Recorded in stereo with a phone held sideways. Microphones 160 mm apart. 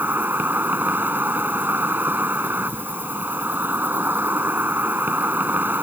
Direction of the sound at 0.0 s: 10° right (ahead or behind).